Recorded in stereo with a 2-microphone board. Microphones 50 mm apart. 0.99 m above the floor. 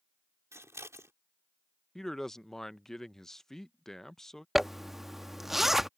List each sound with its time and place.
0.5 s scissors: 75° right (ahead or behind)
1.9 s a man speaking: 10° left (ahead or behind)
4.5 s a zipper: 5° right (ahead or behind)